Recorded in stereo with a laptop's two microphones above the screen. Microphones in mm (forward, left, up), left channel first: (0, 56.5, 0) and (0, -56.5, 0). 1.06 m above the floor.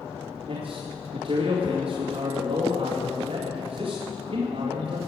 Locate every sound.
0.5 s a man speaking: 70° right (ahead or behind), 2 m